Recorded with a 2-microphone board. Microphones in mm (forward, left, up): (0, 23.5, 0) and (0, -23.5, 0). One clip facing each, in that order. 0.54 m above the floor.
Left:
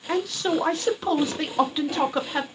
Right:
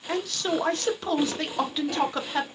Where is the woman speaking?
10° left (ahead or behind), 0.8 m.